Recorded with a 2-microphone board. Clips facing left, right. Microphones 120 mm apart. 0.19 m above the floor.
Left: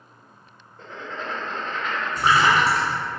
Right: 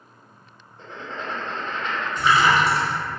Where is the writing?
25° right (ahead or behind), 1.7 m.